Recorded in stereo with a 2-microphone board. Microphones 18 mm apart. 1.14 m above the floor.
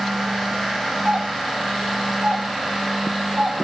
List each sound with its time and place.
1.1 s a doorbell: 50° right (ahead or behind), 4 m